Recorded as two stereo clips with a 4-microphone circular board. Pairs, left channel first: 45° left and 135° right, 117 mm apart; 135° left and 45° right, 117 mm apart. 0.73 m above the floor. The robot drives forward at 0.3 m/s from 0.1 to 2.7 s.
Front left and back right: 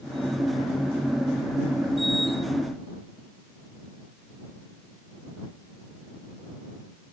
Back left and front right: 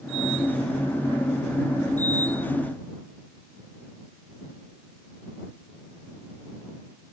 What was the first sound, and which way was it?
Only background noise.